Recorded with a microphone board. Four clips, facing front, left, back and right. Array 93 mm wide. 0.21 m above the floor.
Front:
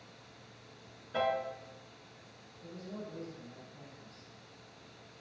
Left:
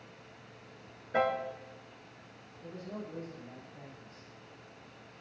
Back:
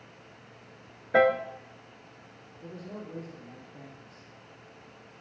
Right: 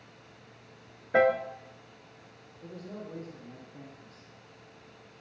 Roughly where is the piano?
Behind right.